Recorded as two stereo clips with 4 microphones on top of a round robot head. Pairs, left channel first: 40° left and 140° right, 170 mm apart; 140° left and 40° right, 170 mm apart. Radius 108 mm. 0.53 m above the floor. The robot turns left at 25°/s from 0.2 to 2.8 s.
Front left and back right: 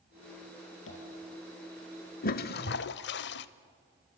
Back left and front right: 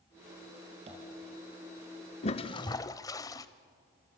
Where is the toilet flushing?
85° left, 0.6 m; by 3.5 s 70° left, 0.6 m.